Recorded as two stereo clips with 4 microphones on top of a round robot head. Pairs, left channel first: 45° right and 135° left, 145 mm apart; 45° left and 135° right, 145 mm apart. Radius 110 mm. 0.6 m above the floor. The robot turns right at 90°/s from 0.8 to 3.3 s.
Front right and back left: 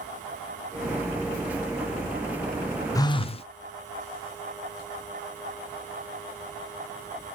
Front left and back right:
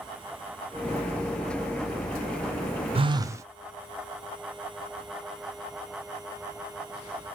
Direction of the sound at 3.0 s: 105° right.